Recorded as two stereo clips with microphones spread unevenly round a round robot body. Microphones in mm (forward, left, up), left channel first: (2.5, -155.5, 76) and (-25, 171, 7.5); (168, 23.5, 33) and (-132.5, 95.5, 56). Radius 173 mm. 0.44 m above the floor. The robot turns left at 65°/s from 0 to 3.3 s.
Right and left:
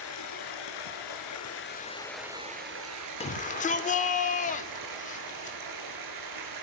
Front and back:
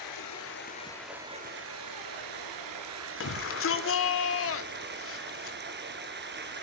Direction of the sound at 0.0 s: 35° right.